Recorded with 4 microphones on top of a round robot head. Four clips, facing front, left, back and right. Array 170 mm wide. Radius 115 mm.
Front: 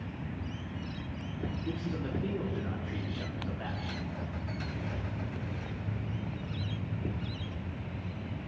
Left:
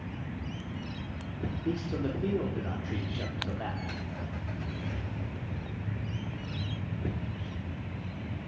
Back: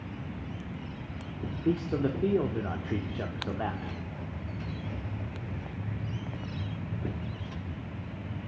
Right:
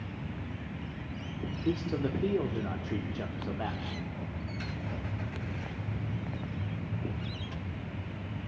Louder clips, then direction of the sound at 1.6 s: Right 2 dB, back 12 dB; 165° right.